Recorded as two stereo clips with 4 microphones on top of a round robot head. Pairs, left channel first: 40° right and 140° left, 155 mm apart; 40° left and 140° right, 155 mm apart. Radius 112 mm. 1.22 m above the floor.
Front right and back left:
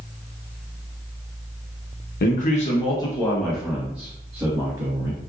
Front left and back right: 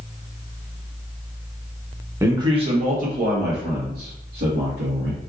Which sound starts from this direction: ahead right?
A man speaking, at 2.2 s.